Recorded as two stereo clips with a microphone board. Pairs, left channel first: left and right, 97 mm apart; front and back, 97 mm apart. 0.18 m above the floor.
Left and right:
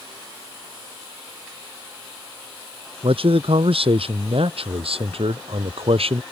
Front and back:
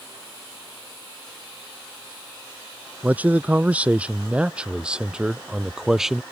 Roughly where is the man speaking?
Right.